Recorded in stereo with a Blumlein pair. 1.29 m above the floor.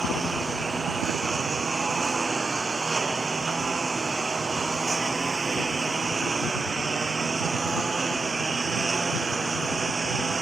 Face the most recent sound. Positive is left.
turn(degrees=-15)